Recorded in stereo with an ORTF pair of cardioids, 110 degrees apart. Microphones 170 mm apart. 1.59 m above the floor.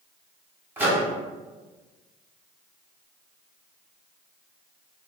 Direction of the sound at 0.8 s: 10° right.